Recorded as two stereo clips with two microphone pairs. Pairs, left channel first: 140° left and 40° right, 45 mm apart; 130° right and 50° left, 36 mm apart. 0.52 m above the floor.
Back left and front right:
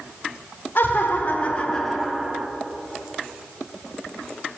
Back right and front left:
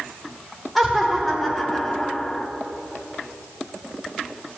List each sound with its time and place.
0.8 s laughter: 140° left, 1.6 m; by 2.5 s 80° right, 1.1 m